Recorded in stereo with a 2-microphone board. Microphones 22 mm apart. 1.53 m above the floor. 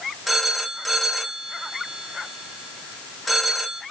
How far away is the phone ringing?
About 2 m.